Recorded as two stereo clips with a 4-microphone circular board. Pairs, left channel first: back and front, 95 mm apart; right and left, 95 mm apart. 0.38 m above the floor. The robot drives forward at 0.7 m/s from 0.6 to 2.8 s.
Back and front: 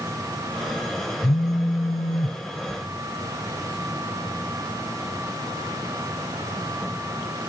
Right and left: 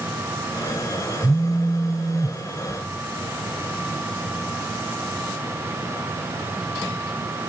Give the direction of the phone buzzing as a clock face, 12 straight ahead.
6 o'clock.